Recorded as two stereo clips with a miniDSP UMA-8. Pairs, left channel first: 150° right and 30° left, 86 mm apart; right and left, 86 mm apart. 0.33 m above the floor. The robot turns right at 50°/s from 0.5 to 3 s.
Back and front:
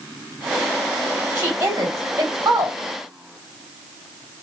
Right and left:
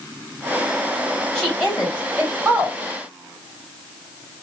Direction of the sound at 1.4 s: 15° right.